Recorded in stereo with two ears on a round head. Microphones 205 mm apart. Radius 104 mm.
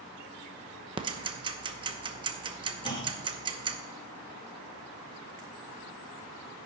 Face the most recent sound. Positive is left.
turn(degrees=20)  # may be behind; listen again after turning